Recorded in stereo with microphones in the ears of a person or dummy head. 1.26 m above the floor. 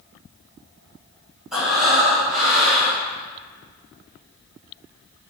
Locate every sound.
1.5 s breathing: centre (ahead or behind), 1.0 m